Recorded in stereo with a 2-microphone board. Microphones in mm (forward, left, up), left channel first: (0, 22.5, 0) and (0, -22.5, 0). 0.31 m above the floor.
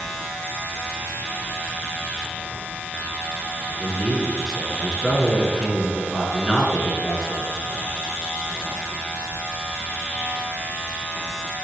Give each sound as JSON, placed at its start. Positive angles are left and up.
{"t": 3.8, "sound": "a man speaking", "side_deg": 5, "distance_m": 4.0}